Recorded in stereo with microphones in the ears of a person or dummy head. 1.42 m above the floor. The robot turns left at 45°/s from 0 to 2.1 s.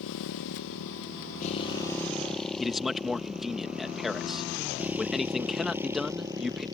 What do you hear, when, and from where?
0.0 s a motorcycle: 75° left (ahead or behind); by 6.8 s 20° right (ahead or behind)
2.6 s a man speaking: 5° right (ahead or behind)